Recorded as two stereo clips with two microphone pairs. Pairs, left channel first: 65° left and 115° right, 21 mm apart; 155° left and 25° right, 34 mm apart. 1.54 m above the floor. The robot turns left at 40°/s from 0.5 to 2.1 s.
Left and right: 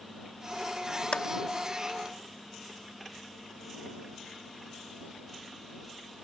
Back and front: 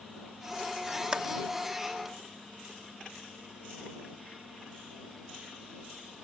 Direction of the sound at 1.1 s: 45° left.